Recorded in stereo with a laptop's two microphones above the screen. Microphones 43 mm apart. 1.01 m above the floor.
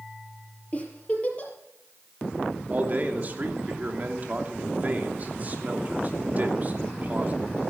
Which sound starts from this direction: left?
A giggle, at 0.7 s.